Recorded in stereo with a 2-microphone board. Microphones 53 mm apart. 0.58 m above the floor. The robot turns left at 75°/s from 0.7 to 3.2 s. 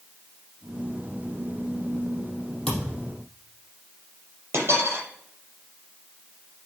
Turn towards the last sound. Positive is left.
turn(degrees=-55)  # may be behind; listen again after turning